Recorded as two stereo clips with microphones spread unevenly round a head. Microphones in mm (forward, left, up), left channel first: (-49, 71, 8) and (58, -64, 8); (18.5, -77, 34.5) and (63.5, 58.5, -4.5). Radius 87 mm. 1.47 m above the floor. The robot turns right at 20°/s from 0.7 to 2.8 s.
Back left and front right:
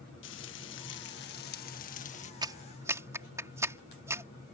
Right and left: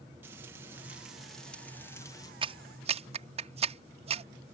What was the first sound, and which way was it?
Frying, 150° left.